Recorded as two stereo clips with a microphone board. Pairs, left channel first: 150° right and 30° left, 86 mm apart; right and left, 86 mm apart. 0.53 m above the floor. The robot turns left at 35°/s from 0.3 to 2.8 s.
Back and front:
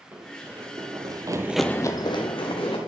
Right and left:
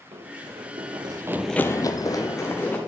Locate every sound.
0.1 s running footsteps: 100° left, 2 m; by 2.8 s 160° right, 1.9 m